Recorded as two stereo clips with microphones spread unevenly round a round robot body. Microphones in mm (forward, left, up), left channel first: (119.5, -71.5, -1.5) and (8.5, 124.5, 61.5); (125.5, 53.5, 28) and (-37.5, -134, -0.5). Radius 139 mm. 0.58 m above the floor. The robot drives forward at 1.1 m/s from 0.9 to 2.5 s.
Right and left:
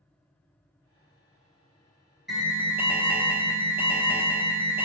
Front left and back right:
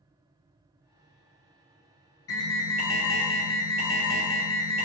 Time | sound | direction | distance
2.3 | an alarm | 20° left | 1.0 m